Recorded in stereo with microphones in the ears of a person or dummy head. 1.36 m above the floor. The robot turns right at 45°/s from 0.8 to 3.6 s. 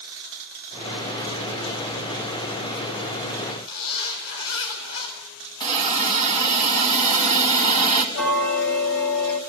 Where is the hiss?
20° left (ahead or behind), 3.5 m.